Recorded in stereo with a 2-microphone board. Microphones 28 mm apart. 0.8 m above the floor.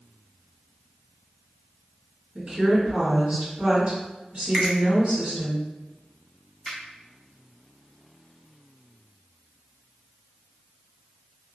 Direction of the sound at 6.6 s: 5° right (ahead or behind).